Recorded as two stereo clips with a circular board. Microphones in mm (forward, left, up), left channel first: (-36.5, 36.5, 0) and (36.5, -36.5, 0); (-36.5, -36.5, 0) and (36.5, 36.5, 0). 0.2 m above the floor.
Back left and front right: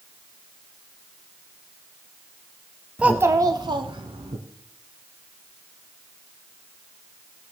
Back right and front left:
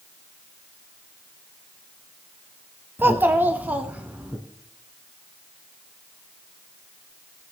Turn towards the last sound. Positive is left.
turn(degrees=-30)